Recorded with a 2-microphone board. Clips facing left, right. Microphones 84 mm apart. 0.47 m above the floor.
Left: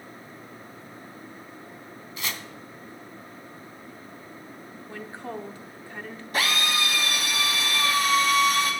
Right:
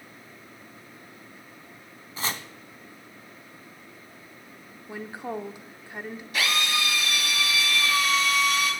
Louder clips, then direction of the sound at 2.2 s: Right 3 dB; 35° right (ahead or behind).